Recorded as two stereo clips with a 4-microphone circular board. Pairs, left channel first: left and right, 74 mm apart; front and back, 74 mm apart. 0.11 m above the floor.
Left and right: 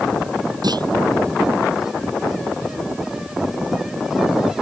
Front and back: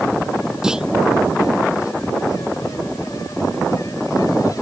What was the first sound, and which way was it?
A clunk, 100° right.